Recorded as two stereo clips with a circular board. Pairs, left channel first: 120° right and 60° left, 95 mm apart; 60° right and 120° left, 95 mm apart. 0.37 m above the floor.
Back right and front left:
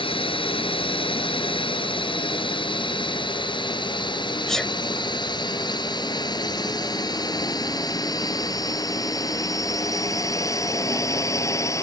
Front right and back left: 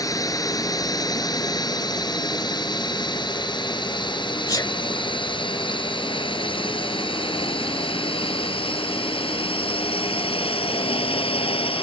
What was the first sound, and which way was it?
A drone, 110° right.